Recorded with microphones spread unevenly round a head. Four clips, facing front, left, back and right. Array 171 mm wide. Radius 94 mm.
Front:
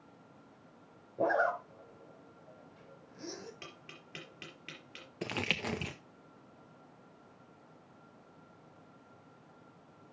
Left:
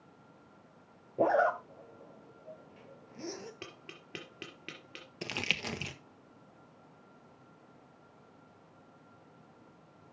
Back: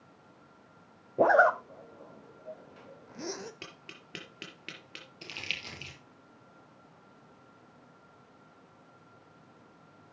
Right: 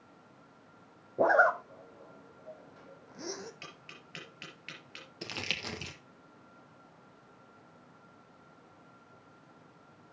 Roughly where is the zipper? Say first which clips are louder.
Right 2 dB, back 8 dB; behind.